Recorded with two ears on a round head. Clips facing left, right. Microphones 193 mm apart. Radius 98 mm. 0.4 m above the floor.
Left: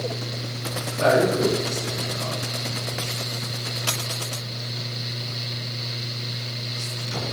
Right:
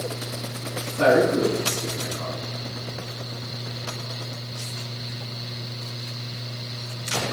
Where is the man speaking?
65° right (ahead or behind), 4.5 m.